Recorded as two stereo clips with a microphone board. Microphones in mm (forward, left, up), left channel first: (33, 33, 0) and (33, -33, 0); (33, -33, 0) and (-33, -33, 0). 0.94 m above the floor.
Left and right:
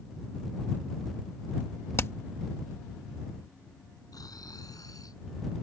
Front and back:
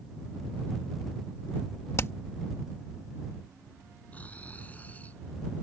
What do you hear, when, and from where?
2.0 s hammering: 45° left
4.1 s snoring: 70° left